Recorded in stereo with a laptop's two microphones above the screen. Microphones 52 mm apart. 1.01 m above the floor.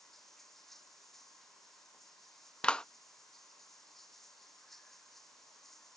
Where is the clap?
20° left (ahead or behind).